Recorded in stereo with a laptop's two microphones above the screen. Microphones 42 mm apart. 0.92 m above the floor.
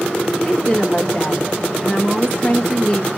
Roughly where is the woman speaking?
Left.